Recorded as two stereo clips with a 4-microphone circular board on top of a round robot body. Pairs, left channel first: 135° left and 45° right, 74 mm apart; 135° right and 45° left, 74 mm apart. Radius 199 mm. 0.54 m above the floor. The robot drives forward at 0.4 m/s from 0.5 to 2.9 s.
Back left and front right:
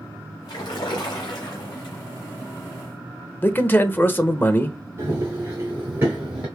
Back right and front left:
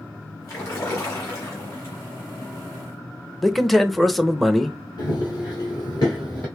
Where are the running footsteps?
100° right, 1.2 m; by 6.5 s 85° right, 0.5 m.